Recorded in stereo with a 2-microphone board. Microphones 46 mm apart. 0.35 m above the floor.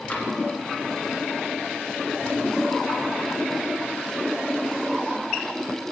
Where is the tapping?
35° left (ahead or behind), 2 m.